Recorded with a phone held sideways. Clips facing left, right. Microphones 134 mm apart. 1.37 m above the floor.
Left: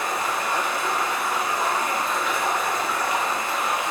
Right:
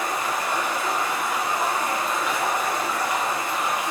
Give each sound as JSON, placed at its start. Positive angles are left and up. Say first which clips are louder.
{"t": 0.0, "sound": "running water", "louder": "even", "side_deg": -15, "distance_m": 1.0}